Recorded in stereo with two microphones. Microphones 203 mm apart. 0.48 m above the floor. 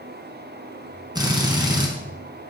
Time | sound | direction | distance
1.1 | a drill | 20° right (ahead or behind) | 4 m